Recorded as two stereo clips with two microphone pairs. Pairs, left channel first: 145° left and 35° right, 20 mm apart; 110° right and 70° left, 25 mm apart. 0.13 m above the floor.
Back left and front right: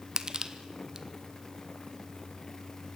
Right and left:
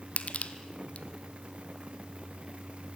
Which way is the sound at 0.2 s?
90° right.